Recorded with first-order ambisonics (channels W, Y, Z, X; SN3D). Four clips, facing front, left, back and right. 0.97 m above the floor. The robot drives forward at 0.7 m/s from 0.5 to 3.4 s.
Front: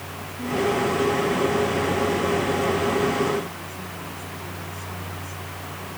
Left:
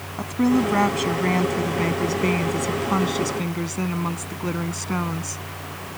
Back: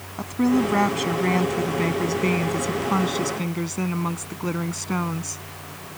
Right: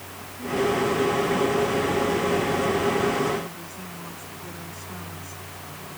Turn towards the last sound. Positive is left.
turn(degrees=135)